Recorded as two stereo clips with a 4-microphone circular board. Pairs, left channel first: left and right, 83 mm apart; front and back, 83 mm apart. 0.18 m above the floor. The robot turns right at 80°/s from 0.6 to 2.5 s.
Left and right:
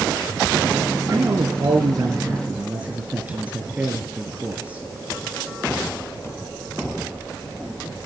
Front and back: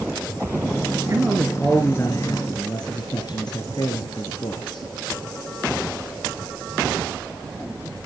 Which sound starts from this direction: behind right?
A man speaking, at 1.1 s.